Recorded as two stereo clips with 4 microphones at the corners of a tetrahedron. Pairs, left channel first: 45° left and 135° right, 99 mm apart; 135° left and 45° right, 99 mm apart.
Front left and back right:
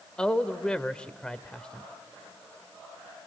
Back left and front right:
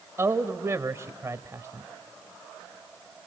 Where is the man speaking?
25° right, 1.0 m.